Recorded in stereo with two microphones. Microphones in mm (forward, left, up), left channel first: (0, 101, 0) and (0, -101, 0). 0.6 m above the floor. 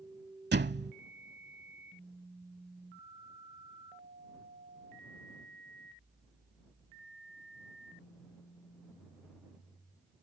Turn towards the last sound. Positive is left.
turn(degrees=-60)  # may be behind; listen again after turning